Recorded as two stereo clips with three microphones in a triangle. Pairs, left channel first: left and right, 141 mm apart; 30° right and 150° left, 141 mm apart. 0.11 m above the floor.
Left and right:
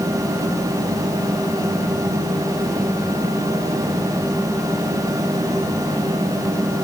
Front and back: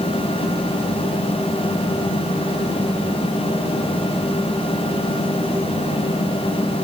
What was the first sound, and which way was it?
Only background noise.